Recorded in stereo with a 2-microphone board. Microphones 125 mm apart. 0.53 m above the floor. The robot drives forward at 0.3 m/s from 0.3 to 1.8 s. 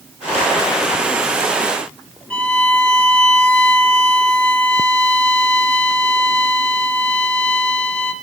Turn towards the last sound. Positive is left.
turn(degrees=10)  # may be behind; listen again after turning